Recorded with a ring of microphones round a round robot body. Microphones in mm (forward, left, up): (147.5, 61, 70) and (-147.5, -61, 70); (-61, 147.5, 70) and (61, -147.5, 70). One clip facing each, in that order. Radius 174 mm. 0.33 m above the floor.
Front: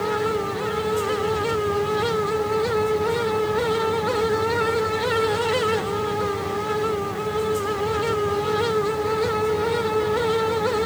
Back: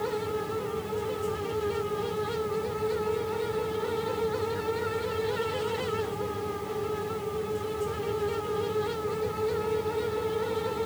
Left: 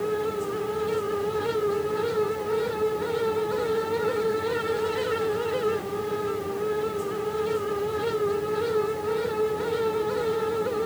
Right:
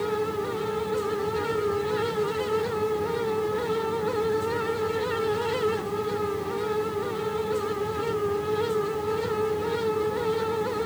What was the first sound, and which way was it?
Only background noise.